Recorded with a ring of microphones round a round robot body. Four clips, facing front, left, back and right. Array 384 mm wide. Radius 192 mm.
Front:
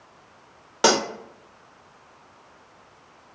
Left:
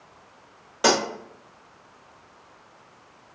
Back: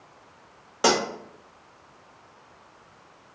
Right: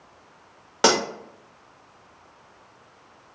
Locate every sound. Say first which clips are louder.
0.8 s cutlery clinking: right 1 dB, front 2 dB; 60° right, 0.7 m